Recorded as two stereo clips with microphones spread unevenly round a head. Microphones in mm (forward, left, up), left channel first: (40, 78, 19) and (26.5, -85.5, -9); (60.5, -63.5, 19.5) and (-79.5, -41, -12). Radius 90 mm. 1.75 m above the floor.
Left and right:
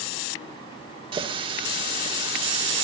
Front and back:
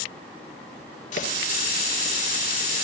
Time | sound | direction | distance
1.1 | a running tap | 30° right | 3 m